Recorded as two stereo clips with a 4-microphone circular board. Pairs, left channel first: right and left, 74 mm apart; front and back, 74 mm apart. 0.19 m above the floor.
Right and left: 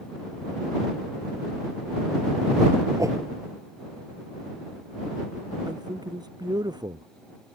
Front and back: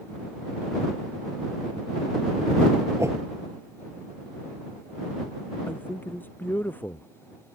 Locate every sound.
3.0 s a whoosh: 130° left
5.7 s a man speaking: 65° left